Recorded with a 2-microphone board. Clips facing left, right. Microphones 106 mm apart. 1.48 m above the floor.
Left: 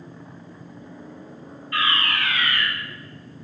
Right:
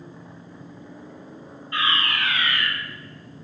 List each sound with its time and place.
1.7 s a fire alarm: 25° right (ahead or behind), 3.5 m